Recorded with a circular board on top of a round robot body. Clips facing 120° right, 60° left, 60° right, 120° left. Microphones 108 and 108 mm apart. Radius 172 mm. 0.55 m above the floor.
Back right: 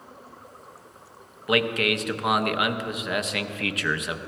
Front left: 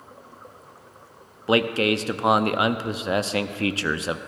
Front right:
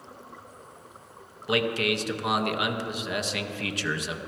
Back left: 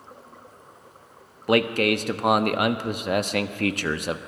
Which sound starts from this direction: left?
A man speaking, at 1.5 s.